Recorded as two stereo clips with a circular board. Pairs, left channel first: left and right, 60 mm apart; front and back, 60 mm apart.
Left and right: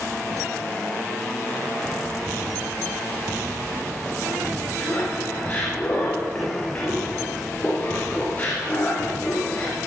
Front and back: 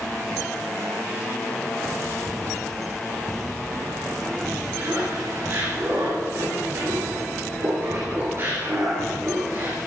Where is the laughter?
145° left, 2.5 m.